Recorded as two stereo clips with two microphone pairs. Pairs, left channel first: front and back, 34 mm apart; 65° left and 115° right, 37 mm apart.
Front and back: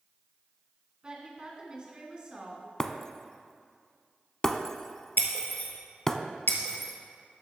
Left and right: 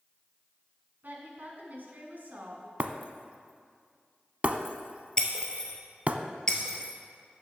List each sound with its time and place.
1.0 s a woman speaking: 125° right, 2.0 m
2.8 s breaking glass: 75° right, 0.5 m
5.2 s breaking glass: straight ahead, 1.7 m